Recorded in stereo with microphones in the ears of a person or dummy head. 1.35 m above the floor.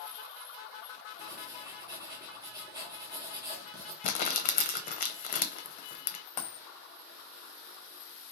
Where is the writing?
20° right (ahead or behind), 0.7 m.